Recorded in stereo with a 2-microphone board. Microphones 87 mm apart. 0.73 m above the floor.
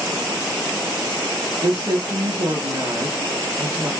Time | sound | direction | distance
1.6 | a woman speaking | 55° right (ahead or behind) | 1.3 m